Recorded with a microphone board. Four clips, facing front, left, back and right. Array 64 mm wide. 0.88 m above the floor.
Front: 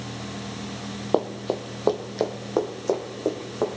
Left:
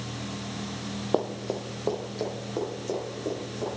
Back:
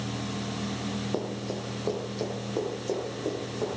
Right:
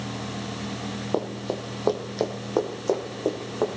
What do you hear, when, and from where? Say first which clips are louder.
1.1 s running footsteps: left 1 dB, front 7 dB; 5° left, 1.2 m; by 3.8 s 50° right, 3.5 m